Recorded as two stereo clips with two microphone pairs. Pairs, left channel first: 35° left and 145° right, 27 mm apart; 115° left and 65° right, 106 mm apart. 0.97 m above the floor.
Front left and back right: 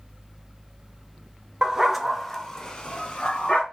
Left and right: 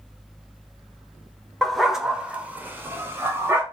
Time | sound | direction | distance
1.6 | a dog barking | 160° right | 0.6 m